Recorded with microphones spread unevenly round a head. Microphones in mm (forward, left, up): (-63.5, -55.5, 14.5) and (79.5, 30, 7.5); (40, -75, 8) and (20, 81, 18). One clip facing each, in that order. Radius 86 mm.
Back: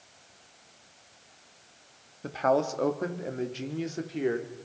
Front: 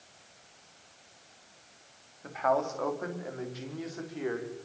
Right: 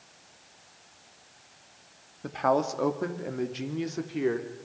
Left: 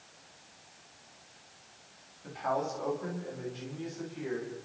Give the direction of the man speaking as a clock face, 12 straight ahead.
3 o'clock.